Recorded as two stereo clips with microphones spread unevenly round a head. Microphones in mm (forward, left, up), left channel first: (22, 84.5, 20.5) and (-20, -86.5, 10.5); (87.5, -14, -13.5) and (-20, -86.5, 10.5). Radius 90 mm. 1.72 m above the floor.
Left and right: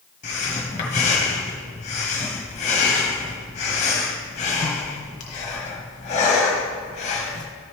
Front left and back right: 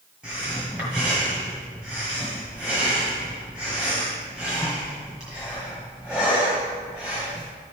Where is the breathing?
130° left, 1.3 m.